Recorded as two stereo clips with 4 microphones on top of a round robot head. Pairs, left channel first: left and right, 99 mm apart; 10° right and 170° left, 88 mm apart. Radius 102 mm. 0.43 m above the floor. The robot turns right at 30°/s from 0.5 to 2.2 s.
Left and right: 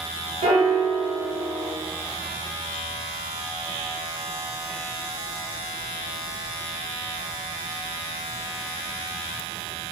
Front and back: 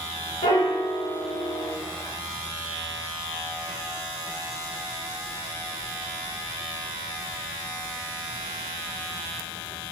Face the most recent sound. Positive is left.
turn(degrees=-5)